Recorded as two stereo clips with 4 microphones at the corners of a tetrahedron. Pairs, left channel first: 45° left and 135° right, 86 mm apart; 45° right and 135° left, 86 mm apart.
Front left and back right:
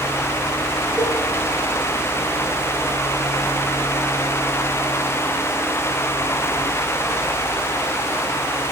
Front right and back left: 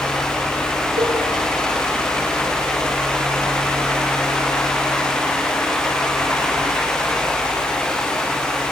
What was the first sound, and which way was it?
A cowbell, 140° left.